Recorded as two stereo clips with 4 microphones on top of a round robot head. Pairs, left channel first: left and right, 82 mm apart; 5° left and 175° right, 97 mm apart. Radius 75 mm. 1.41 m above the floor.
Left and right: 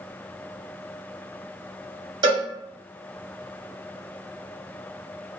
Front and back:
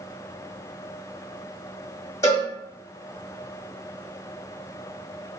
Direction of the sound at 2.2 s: 65° right.